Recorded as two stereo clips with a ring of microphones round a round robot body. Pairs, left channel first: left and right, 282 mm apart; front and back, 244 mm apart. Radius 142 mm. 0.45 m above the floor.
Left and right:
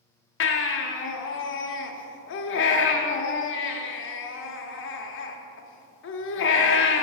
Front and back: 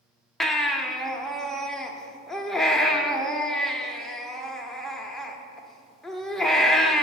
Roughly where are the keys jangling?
I don't hear keys jangling.